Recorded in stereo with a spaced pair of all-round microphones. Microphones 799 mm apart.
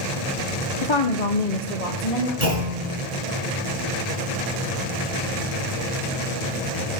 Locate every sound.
0.8 s a woman speaking: 35° left (ahead or behind), 0.6 m; by 2.3 s 45° left (ahead or behind), 1.3 m
2.4 s a clunk: 50° right (ahead or behind), 5 m